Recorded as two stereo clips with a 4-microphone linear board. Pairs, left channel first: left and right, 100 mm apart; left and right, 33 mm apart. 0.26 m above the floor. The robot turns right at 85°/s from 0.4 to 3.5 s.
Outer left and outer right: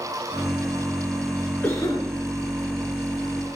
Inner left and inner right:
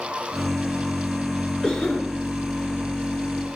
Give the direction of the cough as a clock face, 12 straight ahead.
11 o'clock.